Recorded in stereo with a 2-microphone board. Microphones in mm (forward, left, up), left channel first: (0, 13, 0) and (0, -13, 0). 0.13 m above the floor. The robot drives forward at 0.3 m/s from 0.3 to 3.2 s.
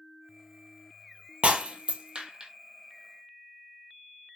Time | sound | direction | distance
1.4 | breaking glass | 60° right (ahead or behind) | 0.5 m